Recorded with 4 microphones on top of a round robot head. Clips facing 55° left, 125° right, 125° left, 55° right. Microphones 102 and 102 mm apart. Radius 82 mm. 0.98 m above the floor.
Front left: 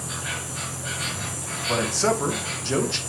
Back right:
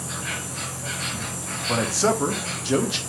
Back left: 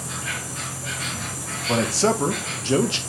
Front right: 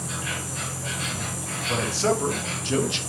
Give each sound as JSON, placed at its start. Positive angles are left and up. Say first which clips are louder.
{"t": 0.0, "sound": "an insect", "louder": "back right 1 dB, even", "azimuth_deg": -30, "distance_m": 0.7}
{"t": 1.7, "sound": "a man speaking", "louder": "back right 1 dB, back left 3 dB", "azimuth_deg": 155, "distance_m": 0.9}